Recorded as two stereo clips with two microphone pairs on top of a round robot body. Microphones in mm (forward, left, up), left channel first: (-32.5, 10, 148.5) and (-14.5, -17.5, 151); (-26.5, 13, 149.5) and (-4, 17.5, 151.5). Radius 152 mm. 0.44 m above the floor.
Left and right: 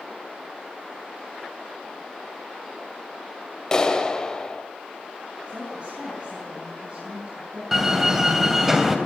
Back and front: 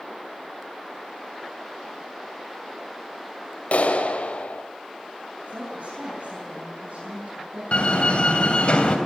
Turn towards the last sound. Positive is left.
turn(degrees=-135)